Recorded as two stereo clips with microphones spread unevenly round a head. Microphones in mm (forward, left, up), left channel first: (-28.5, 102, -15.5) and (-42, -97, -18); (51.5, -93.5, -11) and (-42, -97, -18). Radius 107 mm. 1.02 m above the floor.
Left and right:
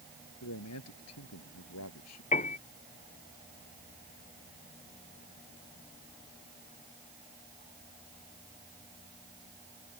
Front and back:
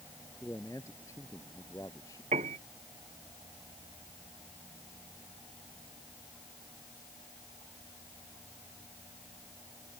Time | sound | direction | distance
0.4 | a man speaking | 80° left | ?
2.3 | a piano | 140° left | ?